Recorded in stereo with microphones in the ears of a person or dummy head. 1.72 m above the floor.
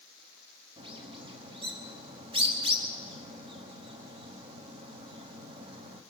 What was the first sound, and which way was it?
A bird, 30° right (ahead or behind).